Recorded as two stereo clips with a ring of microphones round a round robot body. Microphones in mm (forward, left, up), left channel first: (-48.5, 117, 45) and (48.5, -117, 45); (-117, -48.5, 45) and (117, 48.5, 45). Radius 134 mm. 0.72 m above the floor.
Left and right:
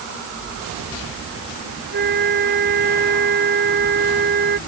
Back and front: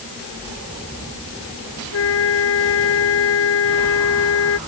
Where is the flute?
120° right.